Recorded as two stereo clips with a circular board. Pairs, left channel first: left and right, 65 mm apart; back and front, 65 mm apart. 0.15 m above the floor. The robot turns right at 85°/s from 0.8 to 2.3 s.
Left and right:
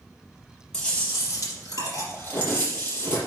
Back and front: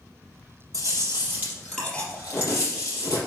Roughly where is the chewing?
Ahead.